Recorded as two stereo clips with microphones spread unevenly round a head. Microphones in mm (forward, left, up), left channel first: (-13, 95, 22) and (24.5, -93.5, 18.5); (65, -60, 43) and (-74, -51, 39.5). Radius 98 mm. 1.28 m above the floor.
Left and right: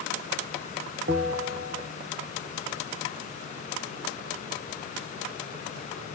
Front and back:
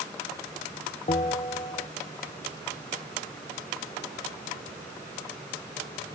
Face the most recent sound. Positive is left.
turn(degrees=-45)